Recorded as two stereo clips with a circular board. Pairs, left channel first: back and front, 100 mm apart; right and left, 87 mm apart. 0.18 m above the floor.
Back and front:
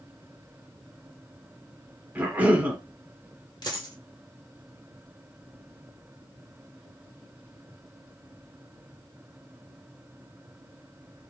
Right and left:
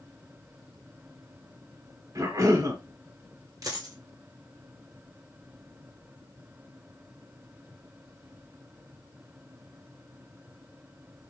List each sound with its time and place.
2.1 s a cough: 65° left, 1.7 m
3.6 s a dropped coin: 135° left, 1.7 m